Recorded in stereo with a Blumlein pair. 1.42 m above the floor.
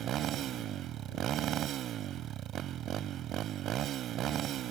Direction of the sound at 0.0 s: 30° right.